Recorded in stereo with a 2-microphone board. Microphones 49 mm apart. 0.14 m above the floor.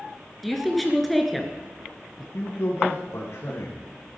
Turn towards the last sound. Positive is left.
turn(degrees=65)  # may be behind; listen again after turning